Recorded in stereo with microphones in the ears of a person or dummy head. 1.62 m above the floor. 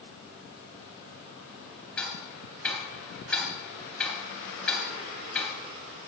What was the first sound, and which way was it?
Ticking, 5° left (ahead or behind).